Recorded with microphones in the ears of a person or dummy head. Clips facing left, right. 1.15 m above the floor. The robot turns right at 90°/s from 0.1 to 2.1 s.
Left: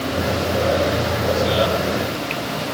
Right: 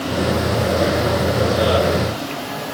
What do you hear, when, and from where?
Only background noise.